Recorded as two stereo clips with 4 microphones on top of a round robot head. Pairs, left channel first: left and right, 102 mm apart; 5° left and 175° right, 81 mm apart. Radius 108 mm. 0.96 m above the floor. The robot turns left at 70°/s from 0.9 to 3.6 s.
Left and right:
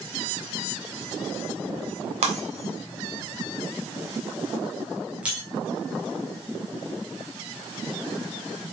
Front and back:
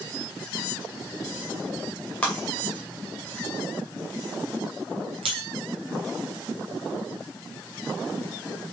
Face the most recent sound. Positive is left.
turn(degrees=-170)